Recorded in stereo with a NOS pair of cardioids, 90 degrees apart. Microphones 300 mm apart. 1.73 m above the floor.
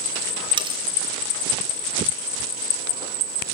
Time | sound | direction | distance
0.6 | cutlery clinking | 15° right | 6 m